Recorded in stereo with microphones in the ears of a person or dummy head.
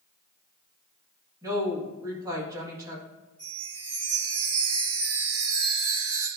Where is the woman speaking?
20° right (ahead or behind), 2 m.